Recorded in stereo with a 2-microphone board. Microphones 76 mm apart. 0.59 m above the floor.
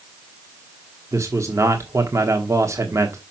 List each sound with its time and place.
1.1 s a man speaking: 40° right (ahead or behind), 1.3 m